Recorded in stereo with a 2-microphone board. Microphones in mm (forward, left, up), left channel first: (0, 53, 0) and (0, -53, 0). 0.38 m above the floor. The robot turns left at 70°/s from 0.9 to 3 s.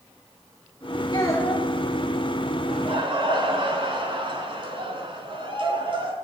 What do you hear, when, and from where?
1.1 s a child speaking: 40° left, 4.5 m; by 1.7 s 5° left, 4.5 m
2.7 s laughter: 70° right (ahead or behind), 3.5 m; by 6.1 s 50° right (ahead or behind), 3.5 m